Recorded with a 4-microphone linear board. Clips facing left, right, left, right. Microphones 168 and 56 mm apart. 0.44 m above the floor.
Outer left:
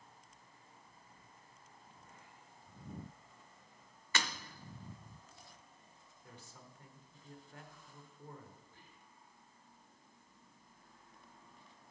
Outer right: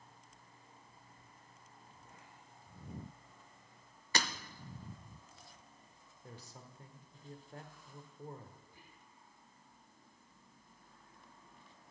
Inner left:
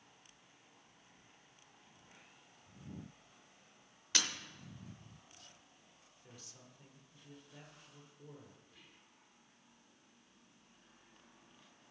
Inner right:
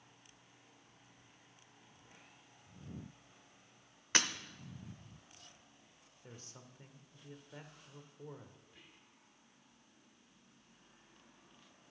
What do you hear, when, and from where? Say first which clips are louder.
4.2 s breaking glass: outer right 2 dB, inner right 4 dB; 35° right (ahead or behind), 0.7 m
6.2 s a man speaking: outer right 3 dB, inner right 4 dB; 35° right (ahead or behind), 1.2 m
8.6 s whispering: outer right 1 dB, inner right 1 dB; 10° right (ahead or behind), 1.0 m